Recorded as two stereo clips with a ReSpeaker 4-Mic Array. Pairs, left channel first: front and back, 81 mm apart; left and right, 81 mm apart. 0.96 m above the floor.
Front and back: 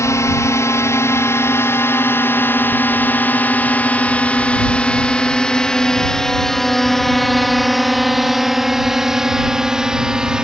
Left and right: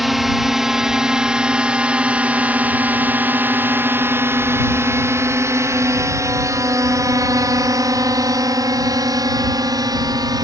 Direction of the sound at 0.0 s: 5° right.